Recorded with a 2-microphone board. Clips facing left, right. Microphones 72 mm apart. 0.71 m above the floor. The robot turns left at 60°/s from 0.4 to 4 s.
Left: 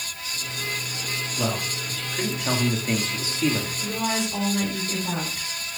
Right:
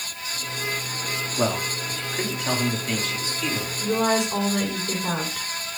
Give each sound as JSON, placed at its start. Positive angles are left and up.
{"t": 1.4, "sound": "a man speaking", "azimuth_deg": -115, "distance_m": 1.8}
{"t": 3.8, "sound": "a woman speaking", "side_deg": -45, "distance_m": 5.0}